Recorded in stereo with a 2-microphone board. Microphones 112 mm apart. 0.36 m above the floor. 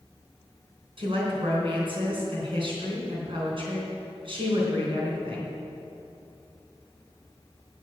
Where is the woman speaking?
55° right (ahead or behind), 3.5 m.